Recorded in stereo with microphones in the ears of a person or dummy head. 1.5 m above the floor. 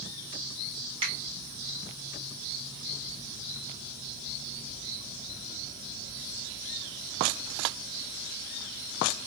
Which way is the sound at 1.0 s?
30° right (ahead or behind).